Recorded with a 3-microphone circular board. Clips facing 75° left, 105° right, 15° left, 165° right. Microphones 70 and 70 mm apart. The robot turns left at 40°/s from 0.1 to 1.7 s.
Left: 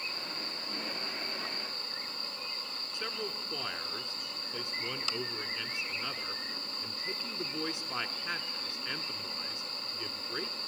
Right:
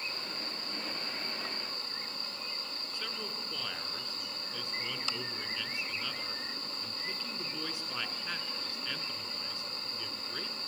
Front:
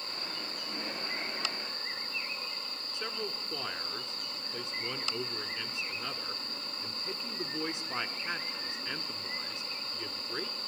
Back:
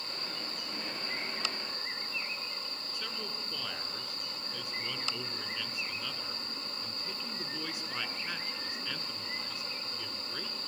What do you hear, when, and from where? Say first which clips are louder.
2.9 s a man speaking: left 4 dB, front 5 dB; 40° left, 1.4 m